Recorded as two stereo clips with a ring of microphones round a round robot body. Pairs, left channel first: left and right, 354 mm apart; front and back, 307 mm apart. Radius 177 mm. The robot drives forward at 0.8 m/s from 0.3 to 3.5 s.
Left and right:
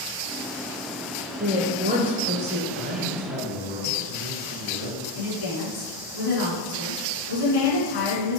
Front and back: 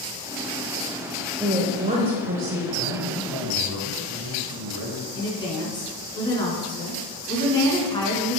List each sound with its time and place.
1.4 s a woman speaking: 95° right, 1.2 m; by 2.6 s 155° right, 1.6 m
2.7 s a man speaking: 145° right, 2.5 m; by 5.0 s 155° right, 3 m
5.2 s a woman speaking: 75° left, 4 m